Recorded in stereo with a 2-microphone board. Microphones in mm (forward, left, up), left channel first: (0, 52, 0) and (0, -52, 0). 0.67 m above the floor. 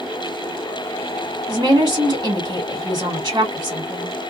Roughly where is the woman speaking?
Right.